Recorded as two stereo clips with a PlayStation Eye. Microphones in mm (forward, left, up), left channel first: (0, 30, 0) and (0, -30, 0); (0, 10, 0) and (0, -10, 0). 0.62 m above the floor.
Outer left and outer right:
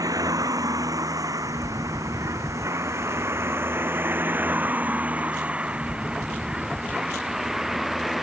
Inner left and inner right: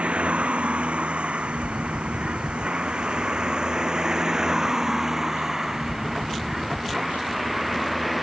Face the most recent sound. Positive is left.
turn(degrees=0)  # may be behind; listen again after turning